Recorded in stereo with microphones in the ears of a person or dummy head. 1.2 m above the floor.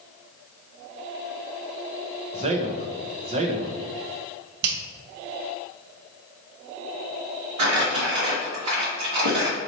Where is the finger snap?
55° right (ahead or behind), 0.9 m.